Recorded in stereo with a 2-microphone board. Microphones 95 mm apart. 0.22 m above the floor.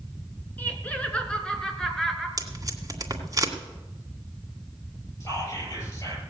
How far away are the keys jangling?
No keys jangling in this recording.